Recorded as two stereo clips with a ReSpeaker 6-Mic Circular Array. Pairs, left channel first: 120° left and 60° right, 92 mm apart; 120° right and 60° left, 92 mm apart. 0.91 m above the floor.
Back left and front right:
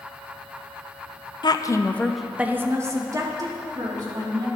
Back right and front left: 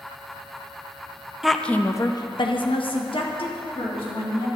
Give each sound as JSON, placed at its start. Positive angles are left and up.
{"t": 1.4, "sound": "a woman speaking", "azimuth_deg": 145, "distance_m": 0.5}